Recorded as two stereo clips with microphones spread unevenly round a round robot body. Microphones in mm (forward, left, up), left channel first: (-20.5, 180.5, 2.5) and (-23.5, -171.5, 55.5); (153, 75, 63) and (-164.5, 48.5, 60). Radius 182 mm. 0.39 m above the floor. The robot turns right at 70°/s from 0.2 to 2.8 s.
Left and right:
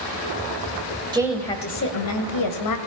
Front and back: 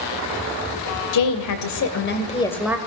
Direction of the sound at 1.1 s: 10° right.